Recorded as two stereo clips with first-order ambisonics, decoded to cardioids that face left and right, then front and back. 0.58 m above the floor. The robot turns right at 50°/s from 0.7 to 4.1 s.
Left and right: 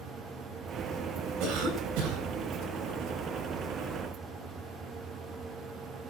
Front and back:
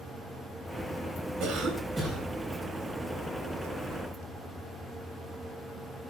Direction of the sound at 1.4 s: 130° right.